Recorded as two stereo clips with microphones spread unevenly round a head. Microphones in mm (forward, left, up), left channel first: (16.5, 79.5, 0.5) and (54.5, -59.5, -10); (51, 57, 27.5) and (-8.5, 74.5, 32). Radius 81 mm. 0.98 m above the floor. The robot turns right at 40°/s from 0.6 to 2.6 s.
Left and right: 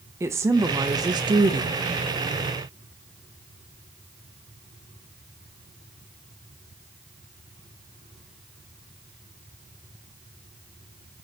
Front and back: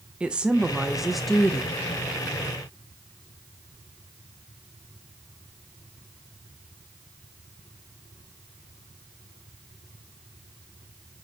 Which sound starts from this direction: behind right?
A woman speaking, at 0.2 s.